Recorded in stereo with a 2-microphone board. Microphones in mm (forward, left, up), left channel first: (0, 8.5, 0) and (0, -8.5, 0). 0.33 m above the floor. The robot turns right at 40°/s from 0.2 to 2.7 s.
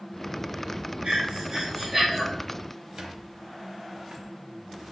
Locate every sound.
1.0 s breathing: 65° right, 2.5 m; by 2.2 s 15° right, 2.5 m
3.0 s a squeak: 55° right (ahead or behind), 0.6 m